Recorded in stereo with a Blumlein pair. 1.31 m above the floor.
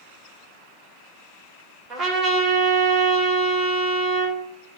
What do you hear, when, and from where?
1.9 s a trumpet: 25° right, 2.5 m